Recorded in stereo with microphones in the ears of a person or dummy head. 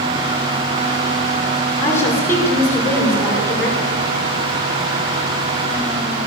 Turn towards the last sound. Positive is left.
turn(degrees=10)  # may be behind; listen again after turning